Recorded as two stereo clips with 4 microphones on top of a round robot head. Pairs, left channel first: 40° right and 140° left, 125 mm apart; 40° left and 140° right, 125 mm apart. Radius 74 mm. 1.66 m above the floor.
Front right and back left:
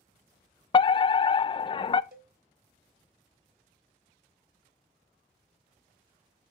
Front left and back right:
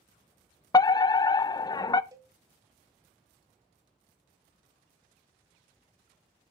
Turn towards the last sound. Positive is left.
turn(degrees=155)